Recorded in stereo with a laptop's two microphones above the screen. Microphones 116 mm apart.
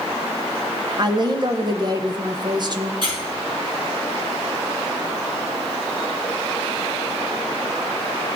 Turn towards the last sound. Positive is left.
turn(degrees=-50)  # may be behind; listen again after turning